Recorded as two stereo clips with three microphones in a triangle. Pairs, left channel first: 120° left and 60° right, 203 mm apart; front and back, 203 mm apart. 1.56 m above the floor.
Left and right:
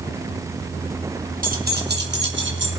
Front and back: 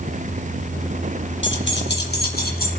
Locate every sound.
1.4 s keys jangling: 15° right, 1.6 m; by 2.7 s 40° right, 2.5 m